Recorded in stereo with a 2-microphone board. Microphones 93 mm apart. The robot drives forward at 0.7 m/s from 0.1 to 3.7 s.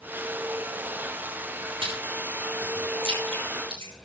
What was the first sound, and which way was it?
Chewing, 80° right.